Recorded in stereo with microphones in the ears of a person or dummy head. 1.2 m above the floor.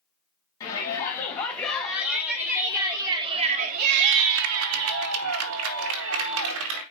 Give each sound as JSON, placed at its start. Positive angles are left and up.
{"t": 0.6, "sound": "a shout", "side_deg": 30, "distance_m": 1.8}